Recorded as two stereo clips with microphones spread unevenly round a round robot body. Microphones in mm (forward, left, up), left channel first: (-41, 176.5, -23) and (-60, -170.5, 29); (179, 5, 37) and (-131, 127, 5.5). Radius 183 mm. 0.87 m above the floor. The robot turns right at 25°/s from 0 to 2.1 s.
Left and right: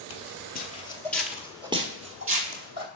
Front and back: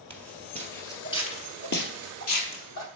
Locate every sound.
0.1 s footsteps: 50° left, 1.0 m; by 2.9 s 45° right, 1.5 m